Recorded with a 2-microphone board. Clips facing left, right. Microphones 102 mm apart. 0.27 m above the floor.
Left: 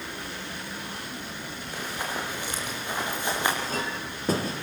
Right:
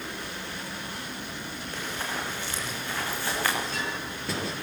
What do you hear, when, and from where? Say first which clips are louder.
1.7 s running footsteps: left 2 dB; 10° left (ahead or behind), 7 m; by 3.5 s 20° left (ahead or behind), 7.5 m
3.6 s a clink: left 2 dB; 40° left (ahead or behind), 4 m